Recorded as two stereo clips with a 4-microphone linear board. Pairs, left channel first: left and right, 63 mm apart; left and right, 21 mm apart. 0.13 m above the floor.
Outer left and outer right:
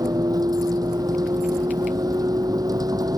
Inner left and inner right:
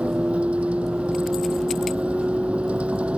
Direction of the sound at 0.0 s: 75° right (ahead or behind).